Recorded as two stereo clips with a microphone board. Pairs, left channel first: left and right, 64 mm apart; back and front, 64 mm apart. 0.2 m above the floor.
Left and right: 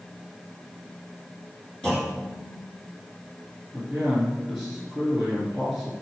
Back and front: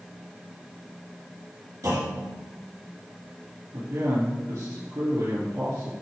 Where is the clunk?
10° left, 3.5 m.